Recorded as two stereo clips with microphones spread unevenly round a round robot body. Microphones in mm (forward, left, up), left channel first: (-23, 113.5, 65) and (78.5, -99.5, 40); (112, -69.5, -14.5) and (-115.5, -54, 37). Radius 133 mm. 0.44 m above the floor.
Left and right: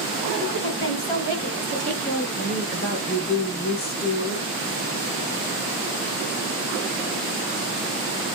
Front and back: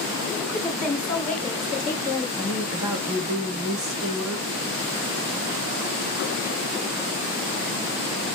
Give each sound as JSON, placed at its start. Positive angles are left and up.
{"t": 0.4, "sound": "a woman speaking", "azimuth_deg": 75, "distance_m": 2.5}
{"t": 2.4, "sound": "a woman speaking", "azimuth_deg": 165, "distance_m": 1.7}